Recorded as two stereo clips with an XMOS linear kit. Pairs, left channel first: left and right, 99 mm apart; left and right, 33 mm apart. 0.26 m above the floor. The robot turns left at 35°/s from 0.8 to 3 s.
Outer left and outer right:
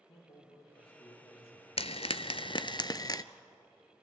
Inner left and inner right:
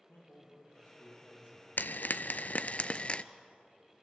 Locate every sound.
0.1 s a man speaking: 100° left, 8 m; by 2.8 s 30° left, 8 m
1.8 s frying: 85° left, 0.6 m; by 3.2 s 40° left, 0.6 m